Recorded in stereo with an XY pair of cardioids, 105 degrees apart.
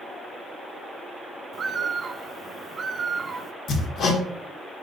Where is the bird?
40° right, 0.6 m.